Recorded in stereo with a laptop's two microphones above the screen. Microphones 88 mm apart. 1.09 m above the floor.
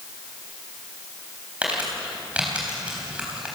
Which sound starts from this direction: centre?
Crumpling, at 1.6 s.